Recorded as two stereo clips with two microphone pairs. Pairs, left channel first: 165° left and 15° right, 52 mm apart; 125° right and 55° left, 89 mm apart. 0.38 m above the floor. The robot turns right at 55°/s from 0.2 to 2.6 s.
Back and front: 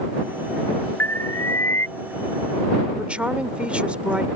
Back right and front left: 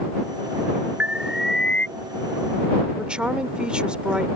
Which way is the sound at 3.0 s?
Straight ahead.